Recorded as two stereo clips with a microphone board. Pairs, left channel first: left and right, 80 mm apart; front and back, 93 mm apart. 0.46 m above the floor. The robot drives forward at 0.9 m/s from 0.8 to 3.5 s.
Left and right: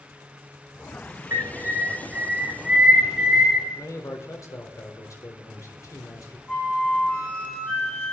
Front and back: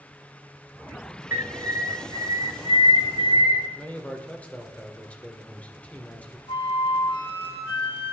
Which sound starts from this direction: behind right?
A bird, at 1.3 s.